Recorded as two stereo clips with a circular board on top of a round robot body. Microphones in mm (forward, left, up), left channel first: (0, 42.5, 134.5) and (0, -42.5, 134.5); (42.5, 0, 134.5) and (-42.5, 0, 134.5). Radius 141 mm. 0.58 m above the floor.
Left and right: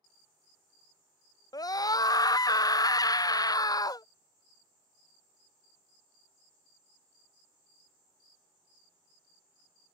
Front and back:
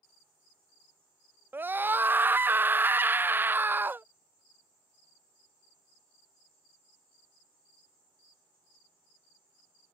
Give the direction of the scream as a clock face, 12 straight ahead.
8 o'clock.